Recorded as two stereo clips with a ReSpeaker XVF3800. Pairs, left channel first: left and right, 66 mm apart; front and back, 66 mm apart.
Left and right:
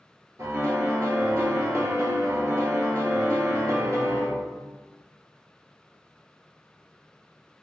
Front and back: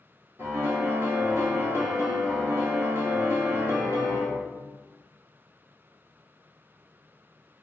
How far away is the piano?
About 1.1 m.